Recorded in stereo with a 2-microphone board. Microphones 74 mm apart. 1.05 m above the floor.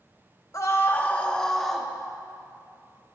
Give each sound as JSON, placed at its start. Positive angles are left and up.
{"t": 0.5, "sound": "a scream", "side_deg": 45, "distance_m": 1.3}